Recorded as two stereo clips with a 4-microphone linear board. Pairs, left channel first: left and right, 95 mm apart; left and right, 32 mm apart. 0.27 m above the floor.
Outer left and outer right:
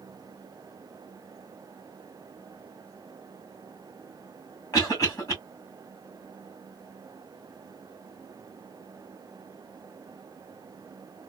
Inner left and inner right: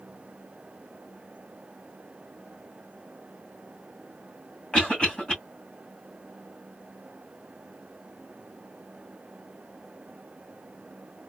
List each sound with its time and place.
4.7 s a cough: 35° left (ahead or behind), 2.5 m